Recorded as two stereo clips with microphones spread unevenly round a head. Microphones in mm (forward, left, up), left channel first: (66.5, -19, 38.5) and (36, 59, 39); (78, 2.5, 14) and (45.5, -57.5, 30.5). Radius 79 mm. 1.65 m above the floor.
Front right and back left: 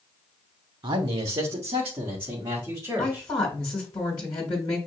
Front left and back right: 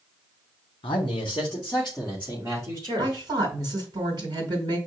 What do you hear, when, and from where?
0.8 s a man speaking: 95° left, 1.3 m; by 3.3 s 175° right, 2.5 m
3.0 s a woman speaking: 120° right, 2 m